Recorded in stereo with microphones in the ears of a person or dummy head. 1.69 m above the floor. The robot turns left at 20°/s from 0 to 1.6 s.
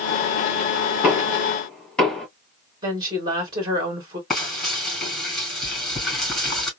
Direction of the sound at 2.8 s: 25° right (ahead or behind).